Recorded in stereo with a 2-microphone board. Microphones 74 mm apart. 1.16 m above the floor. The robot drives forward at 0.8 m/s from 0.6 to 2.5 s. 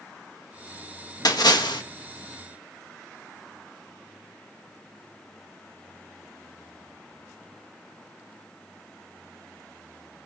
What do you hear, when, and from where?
1.2 s a splash: 60° left (ahead or behind), 1.7 m; by 1.8 s 75° left (ahead or behind), 1.5 m